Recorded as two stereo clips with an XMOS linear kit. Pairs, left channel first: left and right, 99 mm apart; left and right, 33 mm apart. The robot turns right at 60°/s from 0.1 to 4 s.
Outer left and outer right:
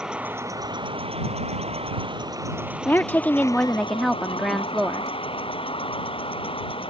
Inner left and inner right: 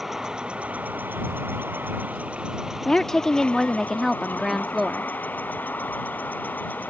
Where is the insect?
175° right; by 6.9 s 60° left.